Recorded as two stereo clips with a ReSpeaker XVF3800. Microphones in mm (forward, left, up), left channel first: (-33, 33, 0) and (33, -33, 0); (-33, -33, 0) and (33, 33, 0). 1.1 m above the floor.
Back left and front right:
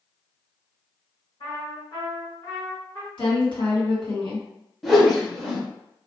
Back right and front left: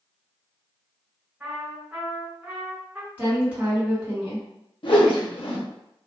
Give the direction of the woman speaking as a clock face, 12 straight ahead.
8 o'clock.